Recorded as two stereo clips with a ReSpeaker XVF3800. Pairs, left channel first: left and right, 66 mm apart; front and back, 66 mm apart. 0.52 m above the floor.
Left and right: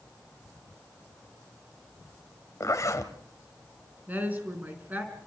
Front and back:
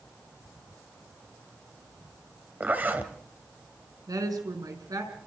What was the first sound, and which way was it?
A zipper, 120° left.